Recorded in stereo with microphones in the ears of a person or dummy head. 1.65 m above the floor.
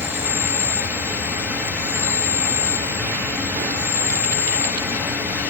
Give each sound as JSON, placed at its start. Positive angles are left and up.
{"t": 0.0, "sound": "an insect", "side_deg": -5, "distance_m": 2.5}